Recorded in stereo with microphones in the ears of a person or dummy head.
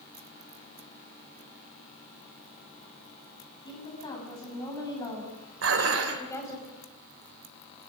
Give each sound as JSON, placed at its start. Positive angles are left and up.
{"t": 3.6, "sound": "a woman speaking", "side_deg": 30, "distance_m": 9.0}
{"t": 5.6, "sound": "dishes clattering", "side_deg": -85, "distance_m": 3.0}